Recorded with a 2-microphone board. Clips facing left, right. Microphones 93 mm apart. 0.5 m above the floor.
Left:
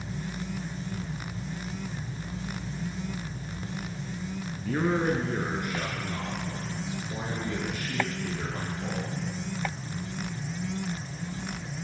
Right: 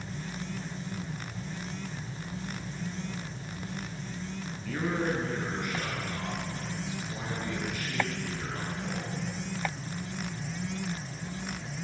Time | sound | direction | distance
4.6 | a man speaking | 40° left (ahead or behind) | 4 m